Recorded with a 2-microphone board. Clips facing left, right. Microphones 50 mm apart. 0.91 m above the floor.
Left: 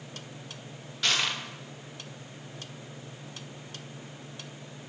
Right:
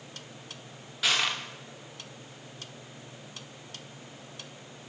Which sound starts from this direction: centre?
Crushing, at 1.0 s.